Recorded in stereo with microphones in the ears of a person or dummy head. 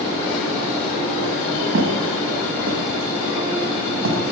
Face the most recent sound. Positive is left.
turn(degrees=-70)  # may be behind; listen again after turning